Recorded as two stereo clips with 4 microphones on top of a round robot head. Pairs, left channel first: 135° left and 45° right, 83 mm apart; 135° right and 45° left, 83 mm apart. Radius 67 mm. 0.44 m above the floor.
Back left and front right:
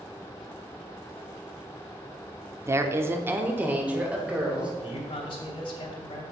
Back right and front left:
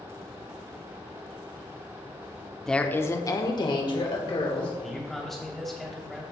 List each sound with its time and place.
2.6 s a woman speaking: 55° right, 0.9 m; by 4.7 s 120° right, 2.5 m
4.8 s a man speaking: 140° left, 2.5 m